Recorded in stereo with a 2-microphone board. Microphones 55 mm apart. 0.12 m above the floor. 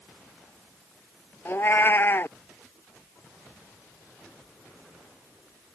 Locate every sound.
1.4 s a cat meowing: 45° left (ahead or behind)